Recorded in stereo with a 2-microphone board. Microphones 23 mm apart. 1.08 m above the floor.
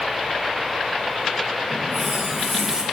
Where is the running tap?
30° right (ahead or behind), 4 m.